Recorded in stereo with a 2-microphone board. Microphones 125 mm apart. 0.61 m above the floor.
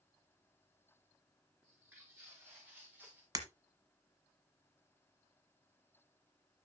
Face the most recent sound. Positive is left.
turn(degrees=-30)  # may be behind; listen again after turning